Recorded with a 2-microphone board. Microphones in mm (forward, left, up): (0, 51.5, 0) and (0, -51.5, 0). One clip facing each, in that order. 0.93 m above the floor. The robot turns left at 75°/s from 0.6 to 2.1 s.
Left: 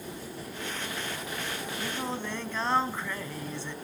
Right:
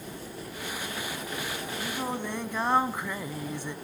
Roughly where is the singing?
Centre.